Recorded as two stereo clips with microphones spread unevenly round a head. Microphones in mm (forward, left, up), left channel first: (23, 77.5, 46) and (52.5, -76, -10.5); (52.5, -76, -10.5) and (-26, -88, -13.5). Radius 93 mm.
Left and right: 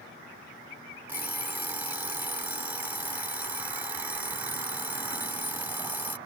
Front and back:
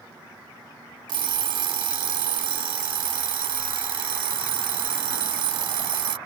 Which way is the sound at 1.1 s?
165° right.